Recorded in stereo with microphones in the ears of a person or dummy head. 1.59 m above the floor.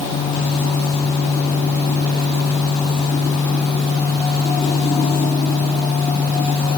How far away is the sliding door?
No sliding door in this recording.